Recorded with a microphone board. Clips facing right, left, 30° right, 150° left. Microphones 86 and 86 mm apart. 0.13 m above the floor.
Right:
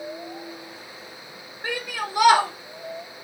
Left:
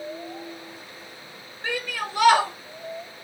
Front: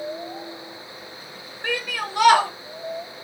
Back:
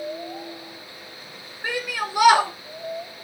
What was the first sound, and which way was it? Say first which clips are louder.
A shout: even, even; 145° right.